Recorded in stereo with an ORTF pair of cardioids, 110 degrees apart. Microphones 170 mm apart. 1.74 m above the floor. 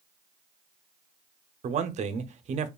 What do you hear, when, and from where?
1.6 s a man speaking: 45° right, 0.7 m